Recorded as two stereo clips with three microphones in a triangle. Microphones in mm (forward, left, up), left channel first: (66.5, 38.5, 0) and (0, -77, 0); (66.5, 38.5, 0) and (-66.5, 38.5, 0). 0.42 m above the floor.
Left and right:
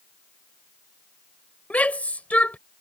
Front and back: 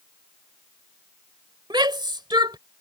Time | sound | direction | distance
1.7 | a shout | 135° left | ?